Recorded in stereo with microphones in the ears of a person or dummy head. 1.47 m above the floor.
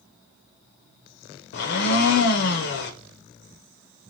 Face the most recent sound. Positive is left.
turn(degrees=60)  # may be behind; listen again after turning